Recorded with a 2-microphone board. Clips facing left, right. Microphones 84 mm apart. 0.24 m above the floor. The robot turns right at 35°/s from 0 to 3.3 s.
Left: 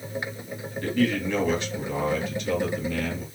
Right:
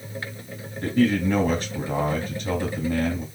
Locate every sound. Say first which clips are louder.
0.8 s a man speaking: right 4 dB; 140° right, 1.9 m; by 3.2 s 55° right, 1.9 m